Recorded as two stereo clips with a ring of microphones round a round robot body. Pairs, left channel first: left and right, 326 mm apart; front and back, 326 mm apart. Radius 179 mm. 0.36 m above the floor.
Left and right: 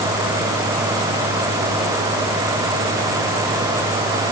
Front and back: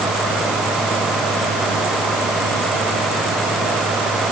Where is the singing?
I don't hear singing.